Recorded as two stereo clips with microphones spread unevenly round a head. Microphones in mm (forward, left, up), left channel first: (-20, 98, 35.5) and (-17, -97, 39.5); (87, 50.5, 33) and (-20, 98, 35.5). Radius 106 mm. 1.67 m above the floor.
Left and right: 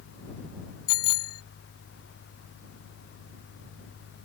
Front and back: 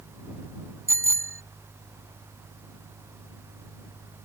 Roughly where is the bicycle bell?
Left.